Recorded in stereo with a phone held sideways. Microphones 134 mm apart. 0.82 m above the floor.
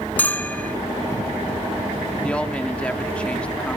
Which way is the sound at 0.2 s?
10° left (ahead or behind).